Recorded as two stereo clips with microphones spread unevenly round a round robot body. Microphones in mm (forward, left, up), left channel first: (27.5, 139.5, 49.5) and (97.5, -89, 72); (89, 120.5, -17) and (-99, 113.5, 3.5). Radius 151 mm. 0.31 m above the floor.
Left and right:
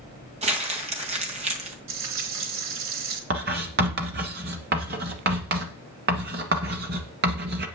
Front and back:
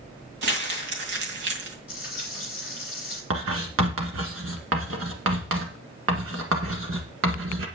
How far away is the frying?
About 3.5 m.